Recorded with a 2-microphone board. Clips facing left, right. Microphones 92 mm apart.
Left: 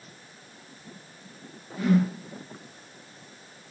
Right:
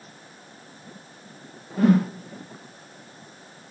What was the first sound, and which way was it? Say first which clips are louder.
A whoosh: right 4 dB; 55° right (ahead or behind).